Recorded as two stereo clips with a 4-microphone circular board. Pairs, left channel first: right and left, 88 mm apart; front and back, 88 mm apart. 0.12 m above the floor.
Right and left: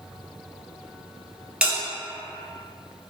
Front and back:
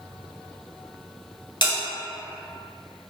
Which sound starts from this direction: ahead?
A bell, at 1.6 s.